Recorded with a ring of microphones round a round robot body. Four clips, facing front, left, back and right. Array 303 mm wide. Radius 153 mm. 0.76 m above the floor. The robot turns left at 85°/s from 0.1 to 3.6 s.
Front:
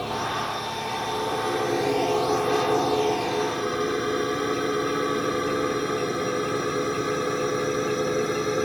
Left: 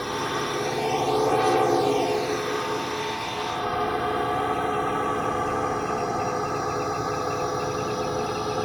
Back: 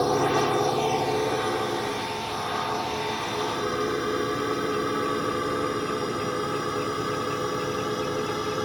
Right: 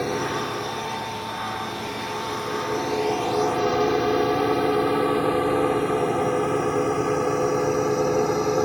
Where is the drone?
155° right; by 8.7 s 75° right.